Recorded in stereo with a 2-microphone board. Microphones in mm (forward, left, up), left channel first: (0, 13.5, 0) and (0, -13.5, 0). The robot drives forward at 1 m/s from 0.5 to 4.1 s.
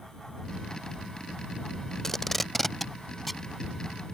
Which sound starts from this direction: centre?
Tape being pulled, at 2.0 s.